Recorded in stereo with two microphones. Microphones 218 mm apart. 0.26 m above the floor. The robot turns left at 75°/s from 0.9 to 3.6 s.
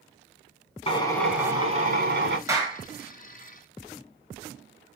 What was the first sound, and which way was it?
A drill, 30° left.